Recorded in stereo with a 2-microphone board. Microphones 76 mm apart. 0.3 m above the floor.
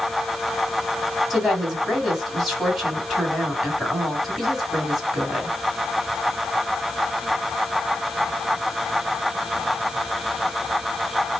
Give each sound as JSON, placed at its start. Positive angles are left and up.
{"t": 1.3, "sound": "a woman speaking", "side_deg": 0, "distance_m": 2.0}